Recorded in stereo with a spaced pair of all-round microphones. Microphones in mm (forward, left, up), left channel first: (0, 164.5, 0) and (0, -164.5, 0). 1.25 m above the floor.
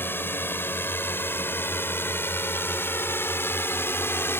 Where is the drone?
5° left (ahead or behind).